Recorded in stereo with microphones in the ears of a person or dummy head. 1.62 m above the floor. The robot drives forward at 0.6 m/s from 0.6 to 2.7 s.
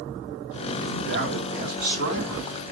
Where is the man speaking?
60° right (ahead or behind), 2 m; by 2.7 s 40° right (ahead or behind), 3 m.